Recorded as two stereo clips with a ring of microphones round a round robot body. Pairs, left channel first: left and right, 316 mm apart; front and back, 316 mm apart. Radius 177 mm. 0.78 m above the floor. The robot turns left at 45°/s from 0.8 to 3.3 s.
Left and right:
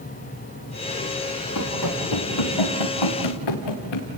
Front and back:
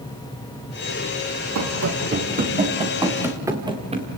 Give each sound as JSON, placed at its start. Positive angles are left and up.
{"t": 1.6, "sound": "running footsteps", "azimuth_deg": 145, "distance_m": 5.0}